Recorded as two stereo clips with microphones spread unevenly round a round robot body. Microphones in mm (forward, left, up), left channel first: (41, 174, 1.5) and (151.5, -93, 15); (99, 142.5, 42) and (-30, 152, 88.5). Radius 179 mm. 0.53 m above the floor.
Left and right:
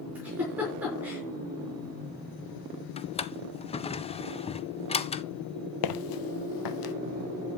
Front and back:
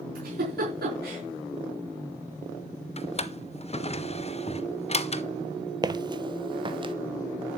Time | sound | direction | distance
0.1 | a giggle | 155° right | 5 m
3.0 | a drawer | 40° left | 1.4 m
5.8 | footsteps | 130° left | 1.1 m